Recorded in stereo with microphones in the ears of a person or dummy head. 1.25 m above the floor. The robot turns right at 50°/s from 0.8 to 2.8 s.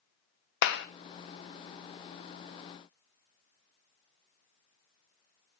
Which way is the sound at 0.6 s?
60° left (ahead or behind).